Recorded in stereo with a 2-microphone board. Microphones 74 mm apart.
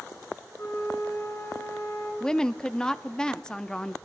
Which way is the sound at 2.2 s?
10° left (ahead or behind).